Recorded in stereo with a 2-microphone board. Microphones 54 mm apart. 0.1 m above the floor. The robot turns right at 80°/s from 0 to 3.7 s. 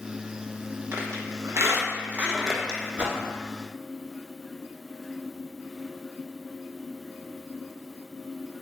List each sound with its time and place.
0.9 s a squeak: 50° right (ahead or behind), 0.5 m; by 2.8 s 20° left (ahead or behind), 0.5 m
3.0 s a whoosh: 20° right (ahead or behind), 0.6 m; by 3.2 s 15° right (ahead or behind), 0.6 m